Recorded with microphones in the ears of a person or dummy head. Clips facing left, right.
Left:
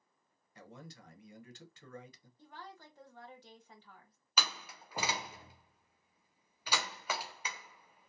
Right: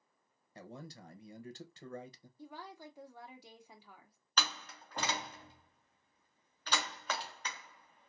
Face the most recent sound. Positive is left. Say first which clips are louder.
# even
turn(degrees=10)  # may be behind; listen again after turning